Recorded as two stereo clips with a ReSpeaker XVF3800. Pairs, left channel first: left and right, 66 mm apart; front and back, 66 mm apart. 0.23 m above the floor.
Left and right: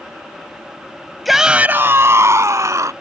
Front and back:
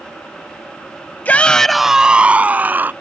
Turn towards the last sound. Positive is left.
turn(degrees=-120)